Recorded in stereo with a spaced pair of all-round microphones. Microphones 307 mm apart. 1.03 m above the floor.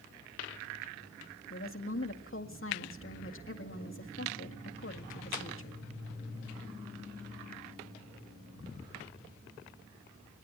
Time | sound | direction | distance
1.5 | a woman speaking | 45° left (ahead or behind) | 1.9 m